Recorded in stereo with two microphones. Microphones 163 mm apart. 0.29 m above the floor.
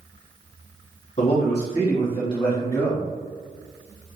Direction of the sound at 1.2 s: 50° left (ahead or behind).